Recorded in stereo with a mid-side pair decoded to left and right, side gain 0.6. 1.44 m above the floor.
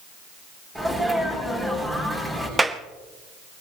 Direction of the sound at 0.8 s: 10° right.